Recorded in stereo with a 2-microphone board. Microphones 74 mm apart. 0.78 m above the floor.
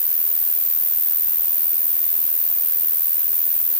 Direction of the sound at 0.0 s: 70° right (ahead or behind).